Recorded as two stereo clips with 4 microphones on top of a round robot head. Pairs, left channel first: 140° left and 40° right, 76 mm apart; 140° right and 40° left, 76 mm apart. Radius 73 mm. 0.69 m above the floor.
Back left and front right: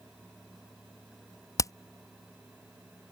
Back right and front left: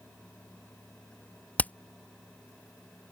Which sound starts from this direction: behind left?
Hammering, at 1.6 s.